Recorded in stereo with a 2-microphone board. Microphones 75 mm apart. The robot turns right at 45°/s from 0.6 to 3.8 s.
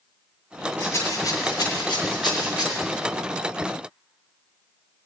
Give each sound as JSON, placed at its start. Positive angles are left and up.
{"t": 0.8, "sound": "a rattle", "side_deg": 30, "distance_m": 4.5}